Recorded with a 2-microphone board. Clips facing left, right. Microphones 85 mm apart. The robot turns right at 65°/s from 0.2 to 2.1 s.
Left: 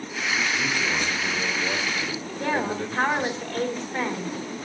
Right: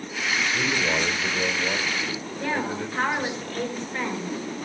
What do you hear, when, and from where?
0.5 s a man speaking: 65° right, 4.5 m; by 3.4 s 40° left, 4.5 m
2.4 s a woman speaking: 35° left (ahead or behind), 5 m